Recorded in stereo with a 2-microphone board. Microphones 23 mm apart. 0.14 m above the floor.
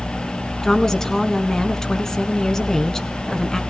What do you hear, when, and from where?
0.6 s a woman speaking: 25° left (ahead or behind), 1.3 m